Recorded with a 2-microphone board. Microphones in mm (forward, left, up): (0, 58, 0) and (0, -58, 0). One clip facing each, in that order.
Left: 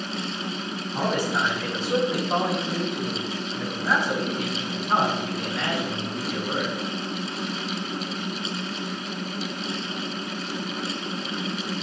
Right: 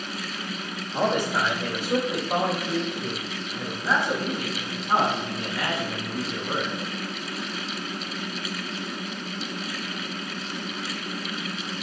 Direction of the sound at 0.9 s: 15° right (ahead or behind).